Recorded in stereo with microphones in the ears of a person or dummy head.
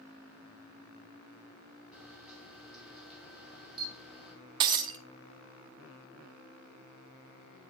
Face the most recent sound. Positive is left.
turn(degrees=-25)  # may be behind; listen again after turning